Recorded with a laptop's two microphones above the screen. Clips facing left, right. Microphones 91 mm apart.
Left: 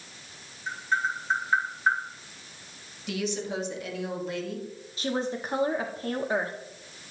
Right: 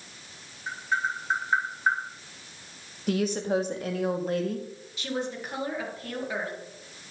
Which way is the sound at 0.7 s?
10° right (ahead or behind).